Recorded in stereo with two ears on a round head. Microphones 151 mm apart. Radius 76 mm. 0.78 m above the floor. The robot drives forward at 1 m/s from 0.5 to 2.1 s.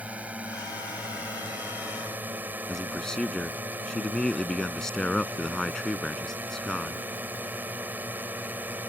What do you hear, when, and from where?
0.0 s a drone: 10° right (ahead or behind)
2.7 s a man speaking: 5° left (ahead or behind)